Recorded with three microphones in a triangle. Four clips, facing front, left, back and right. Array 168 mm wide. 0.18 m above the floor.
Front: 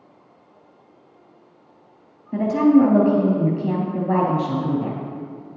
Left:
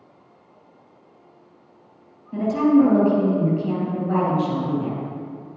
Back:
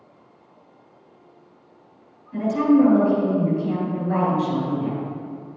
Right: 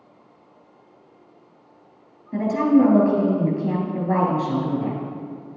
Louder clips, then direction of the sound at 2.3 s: Left 1 dB, front 2 dB; 15° right.